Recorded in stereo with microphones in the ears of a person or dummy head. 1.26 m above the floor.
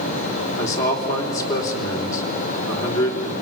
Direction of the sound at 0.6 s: 10° left (ahead or behind).